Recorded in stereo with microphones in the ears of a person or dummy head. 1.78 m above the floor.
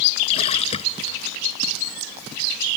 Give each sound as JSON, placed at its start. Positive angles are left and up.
{"t": 0.3, "sound": "a splash", "side_deg": 35}